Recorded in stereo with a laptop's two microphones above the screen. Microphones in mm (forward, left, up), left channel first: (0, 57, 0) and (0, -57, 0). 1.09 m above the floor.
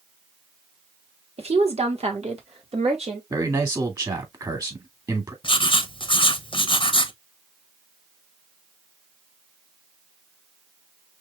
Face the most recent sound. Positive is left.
turn(degrees=50)  # may be behind; listen again after turning